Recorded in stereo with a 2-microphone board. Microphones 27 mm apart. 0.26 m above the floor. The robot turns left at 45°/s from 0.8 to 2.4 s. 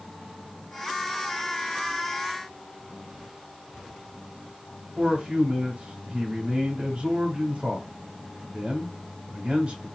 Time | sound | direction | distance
5.0 | a man speaking | 40° right (ahead or behind) | 1.1 m